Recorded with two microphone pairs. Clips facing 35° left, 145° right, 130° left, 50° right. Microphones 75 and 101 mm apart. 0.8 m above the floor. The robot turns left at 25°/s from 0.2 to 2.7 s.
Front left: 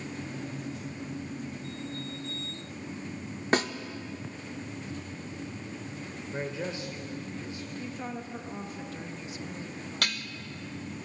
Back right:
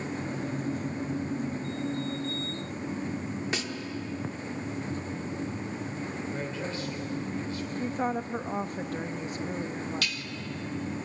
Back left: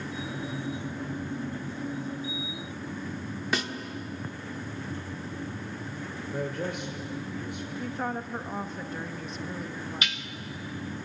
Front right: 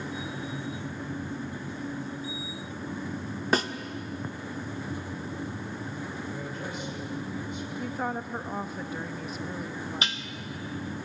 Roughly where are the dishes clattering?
Ahead.